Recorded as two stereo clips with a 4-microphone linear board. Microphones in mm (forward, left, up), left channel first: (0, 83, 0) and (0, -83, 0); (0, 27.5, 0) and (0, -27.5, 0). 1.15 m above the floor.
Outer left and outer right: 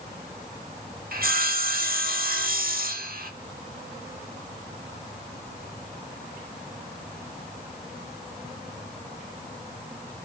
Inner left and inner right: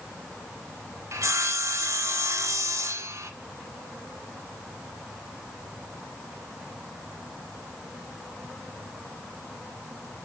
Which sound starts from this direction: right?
Sawing, at 1.1 s.